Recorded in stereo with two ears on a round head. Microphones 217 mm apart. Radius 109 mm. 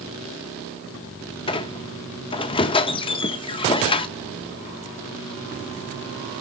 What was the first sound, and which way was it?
A squeak, 25° left (ahead or behind).